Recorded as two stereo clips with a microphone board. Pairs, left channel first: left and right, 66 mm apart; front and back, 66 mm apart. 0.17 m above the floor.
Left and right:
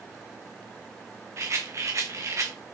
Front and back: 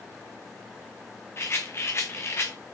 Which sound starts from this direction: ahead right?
A rattle, at 1.4 s.